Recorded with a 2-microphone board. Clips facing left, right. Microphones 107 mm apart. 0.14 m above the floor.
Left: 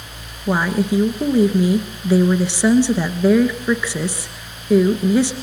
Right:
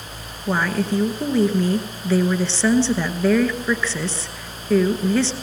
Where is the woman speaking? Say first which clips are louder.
Left 3 dB; 15° left (ahead or behind), 1.7 m.